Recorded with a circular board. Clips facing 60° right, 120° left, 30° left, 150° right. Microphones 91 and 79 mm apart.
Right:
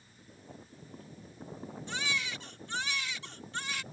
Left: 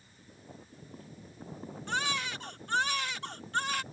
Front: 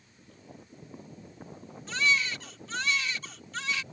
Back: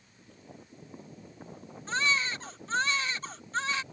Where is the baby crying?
155° left.